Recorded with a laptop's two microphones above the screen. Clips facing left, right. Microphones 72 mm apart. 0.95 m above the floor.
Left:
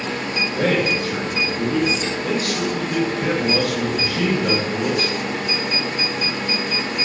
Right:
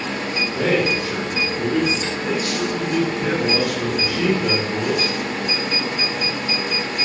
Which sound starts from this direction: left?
A man speaking, at 0.6 s.